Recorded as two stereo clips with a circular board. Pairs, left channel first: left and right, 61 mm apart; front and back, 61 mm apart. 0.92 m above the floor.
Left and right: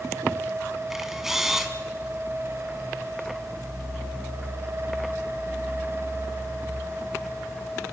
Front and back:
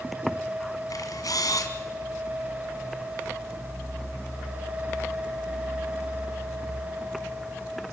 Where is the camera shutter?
5° right, 2.5 m.